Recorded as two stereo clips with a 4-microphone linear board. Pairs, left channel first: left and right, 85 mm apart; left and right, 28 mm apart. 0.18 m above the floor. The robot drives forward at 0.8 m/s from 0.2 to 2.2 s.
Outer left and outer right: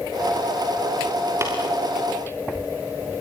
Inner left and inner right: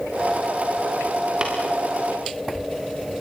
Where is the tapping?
30° right (ahead or behind), 5 m.